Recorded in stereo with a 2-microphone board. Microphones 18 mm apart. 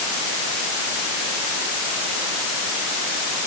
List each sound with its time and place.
Only background noise.